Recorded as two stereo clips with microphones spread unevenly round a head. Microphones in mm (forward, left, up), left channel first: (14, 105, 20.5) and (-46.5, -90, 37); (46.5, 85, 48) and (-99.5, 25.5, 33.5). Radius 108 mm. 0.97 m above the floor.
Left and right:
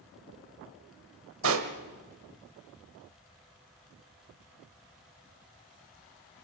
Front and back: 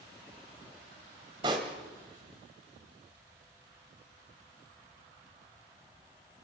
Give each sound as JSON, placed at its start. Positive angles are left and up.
{"t": 1.4, "sound": "a pop", "azimuth_deg": -85, "distance_m": 1.3}